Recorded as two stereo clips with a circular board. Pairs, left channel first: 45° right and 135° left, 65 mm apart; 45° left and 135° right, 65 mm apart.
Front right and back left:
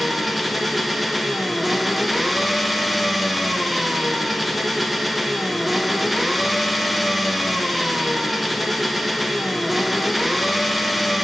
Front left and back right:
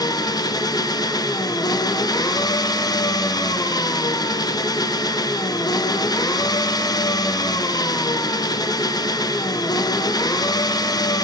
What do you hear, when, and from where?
0.0 s an engine running: 45° left, 0.9 m